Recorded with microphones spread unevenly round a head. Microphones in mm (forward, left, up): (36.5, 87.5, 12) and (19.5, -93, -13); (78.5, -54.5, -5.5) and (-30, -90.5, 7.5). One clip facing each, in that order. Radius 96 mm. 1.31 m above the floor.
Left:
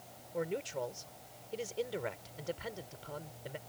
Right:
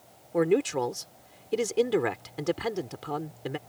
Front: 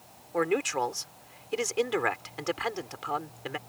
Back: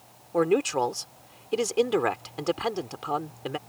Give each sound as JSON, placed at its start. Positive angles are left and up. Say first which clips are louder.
{"t": 0.3, "sound": "a man speaking", "louder": "right 13 dB, back 4 dB", "azimuth_deg": -95}